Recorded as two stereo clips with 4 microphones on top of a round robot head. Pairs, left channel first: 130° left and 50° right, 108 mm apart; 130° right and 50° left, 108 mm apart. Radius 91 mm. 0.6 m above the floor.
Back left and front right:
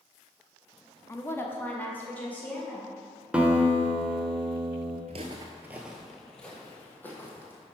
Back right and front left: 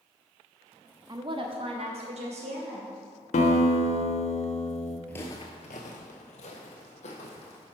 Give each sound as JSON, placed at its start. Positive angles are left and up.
{"t": 1.1, "sound": "a woman speaking", "azimuth_deg": 75, "distance_m": 1.0}
{"t": 3.3, "sound": "a guitar", "azimuth_deg": -130, "distance_m": 0.9}
{"t": 5.1, "sound": "footsteps", "azimuth_deg": -55, "distance_m": 0.6}